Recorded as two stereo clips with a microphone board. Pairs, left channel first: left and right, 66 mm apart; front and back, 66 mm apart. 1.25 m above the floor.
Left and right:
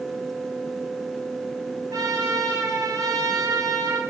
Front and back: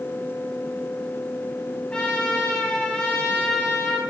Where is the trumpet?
75° right, 3.5 m.